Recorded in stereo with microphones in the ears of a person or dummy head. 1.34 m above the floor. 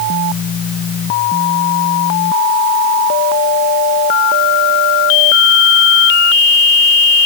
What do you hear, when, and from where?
Only background noise.